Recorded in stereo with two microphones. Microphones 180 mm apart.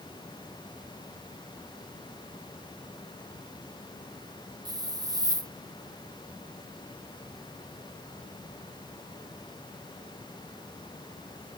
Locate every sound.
4.7 s a hiss: 20° right (ahead or behind)